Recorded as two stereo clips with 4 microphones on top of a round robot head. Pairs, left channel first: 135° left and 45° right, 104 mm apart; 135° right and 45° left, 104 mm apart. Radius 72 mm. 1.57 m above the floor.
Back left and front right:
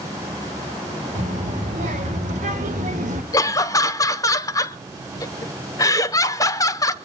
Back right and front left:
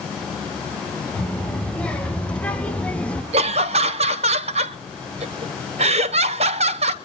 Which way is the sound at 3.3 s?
75° left.